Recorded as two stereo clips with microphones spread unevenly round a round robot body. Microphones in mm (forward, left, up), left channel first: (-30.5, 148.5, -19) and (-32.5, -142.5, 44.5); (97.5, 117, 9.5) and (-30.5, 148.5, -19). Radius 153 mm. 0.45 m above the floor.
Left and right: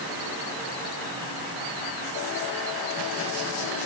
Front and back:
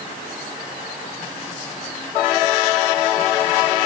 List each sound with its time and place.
Only background noise.